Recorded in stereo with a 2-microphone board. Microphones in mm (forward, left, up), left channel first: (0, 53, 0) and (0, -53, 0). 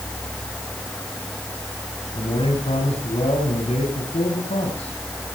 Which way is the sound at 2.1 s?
80° left.